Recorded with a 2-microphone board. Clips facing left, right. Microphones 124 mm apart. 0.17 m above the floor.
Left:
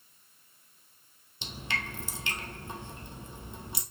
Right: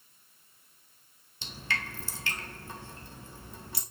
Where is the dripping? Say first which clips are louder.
Even; 20° left (ahead or behind), 2 m.